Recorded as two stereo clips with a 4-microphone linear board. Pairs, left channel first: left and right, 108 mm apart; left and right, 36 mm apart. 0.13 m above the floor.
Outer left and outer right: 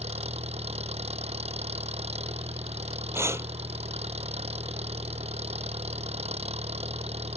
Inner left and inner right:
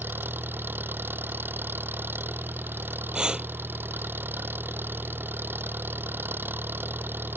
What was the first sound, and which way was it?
An engine running, 70° right (ahead or behind).